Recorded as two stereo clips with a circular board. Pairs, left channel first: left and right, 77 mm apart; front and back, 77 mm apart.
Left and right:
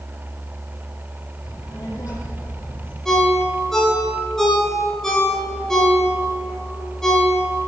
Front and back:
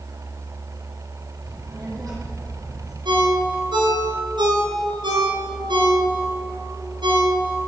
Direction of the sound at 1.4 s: 135° left.